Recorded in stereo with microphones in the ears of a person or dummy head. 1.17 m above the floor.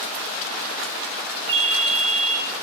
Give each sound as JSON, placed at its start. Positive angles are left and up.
{"t": 1.5, "sound": "a ringtone", "side_deg": -30, "distance_m": 1.2}